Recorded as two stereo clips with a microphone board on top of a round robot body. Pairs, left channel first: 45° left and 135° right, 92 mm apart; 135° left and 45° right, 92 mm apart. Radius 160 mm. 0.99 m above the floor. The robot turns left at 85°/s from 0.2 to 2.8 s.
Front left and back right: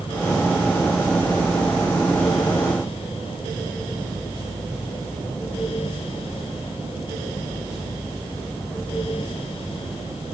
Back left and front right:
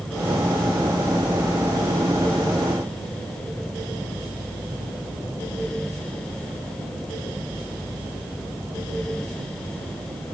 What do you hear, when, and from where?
Only background noise.